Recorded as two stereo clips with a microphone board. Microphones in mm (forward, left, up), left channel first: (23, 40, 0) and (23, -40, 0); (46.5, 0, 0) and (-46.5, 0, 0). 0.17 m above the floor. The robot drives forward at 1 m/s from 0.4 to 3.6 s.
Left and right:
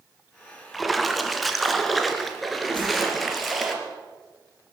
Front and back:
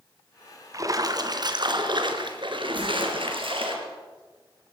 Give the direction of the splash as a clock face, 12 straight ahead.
6 o'clock.